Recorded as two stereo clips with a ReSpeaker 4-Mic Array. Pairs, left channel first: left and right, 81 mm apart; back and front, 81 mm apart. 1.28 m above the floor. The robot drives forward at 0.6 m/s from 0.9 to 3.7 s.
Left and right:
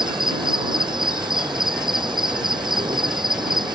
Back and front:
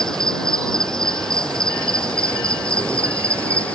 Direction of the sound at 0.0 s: 100° right.